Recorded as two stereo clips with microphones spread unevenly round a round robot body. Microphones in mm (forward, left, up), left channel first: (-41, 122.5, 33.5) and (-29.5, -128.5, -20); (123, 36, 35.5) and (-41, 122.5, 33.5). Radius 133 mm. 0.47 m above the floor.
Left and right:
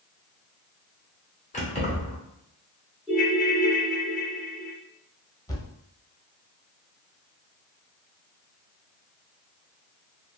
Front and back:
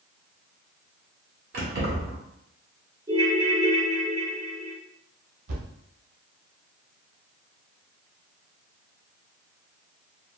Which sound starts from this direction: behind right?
A ringtone, at 3.1 s.